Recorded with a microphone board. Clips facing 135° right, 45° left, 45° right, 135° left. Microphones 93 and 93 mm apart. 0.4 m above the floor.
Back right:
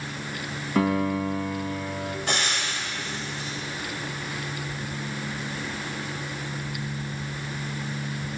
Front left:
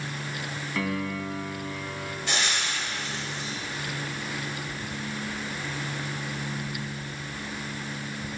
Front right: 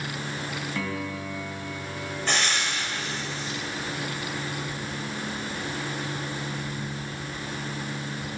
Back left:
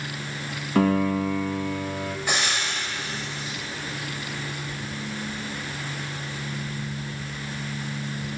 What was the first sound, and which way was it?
A piano, 170° left.